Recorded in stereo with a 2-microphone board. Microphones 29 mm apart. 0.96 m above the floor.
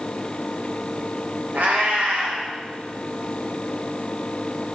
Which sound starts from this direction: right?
A cat meowing, at 1.5 s.